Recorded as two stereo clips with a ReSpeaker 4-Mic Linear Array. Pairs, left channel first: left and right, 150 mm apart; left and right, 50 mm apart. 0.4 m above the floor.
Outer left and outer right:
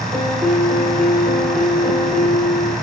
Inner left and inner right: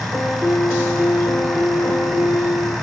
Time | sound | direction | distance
0.1 | a piano | centre (ahead or behind) | 7 m